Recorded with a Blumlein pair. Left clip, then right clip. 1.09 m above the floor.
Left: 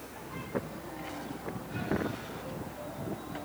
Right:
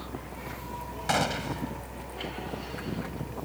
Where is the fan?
35° right.